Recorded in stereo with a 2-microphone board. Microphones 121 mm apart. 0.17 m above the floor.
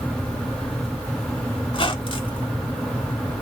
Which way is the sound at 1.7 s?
45° left (ahead or behind).